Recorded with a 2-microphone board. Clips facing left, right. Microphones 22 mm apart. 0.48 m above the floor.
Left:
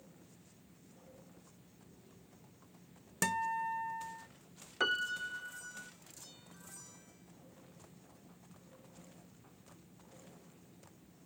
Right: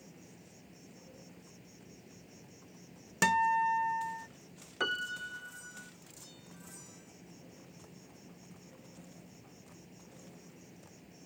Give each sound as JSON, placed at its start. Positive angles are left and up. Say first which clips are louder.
{"t": 0.0, "sound": "an insect", "louder": "right 5 dB", "side_deg": -75}
{"t": 3.2, "sound": "a guitar", "louder": "right 7 dB", "side_deg": -30}
{"t": 4.8, "sound": "a piano", "louder": "left 1 dB", "side_deg": 0}